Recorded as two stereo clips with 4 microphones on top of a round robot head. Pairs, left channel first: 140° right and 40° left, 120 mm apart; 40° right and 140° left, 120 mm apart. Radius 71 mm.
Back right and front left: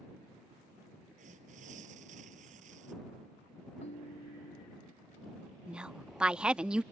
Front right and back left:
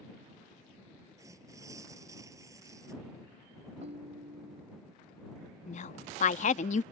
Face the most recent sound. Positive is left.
turn(degrees=-40)